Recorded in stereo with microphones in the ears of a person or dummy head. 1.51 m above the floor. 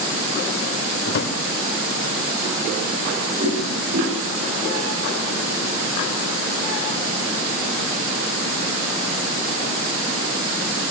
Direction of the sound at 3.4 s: 50° right (ahead or behind).